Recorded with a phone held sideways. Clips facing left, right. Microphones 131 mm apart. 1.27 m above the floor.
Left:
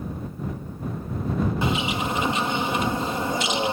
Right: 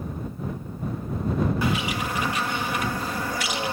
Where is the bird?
25° left (ahead or behind).